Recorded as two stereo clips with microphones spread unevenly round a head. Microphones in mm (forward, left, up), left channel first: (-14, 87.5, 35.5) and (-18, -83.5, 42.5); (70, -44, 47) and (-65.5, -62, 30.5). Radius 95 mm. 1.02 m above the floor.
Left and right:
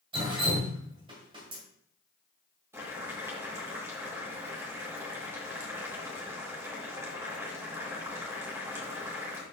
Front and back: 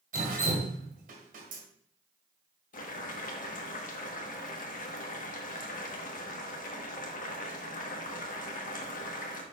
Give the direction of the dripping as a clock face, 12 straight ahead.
5 o'clock.